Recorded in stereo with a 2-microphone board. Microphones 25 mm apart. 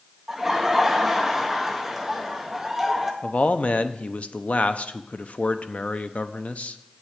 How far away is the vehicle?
No vehicle in this recording.